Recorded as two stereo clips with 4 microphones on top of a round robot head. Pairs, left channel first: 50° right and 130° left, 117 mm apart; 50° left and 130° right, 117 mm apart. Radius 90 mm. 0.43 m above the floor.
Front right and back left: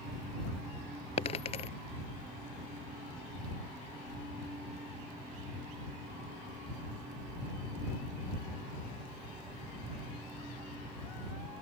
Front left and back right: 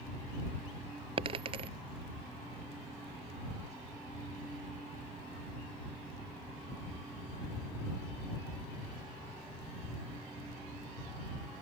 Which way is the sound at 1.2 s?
85° right.